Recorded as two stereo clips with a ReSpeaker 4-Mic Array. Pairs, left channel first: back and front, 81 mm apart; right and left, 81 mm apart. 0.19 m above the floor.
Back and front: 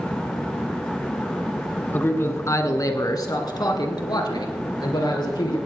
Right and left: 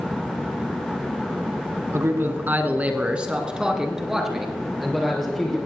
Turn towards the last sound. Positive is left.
turn(degrees=180)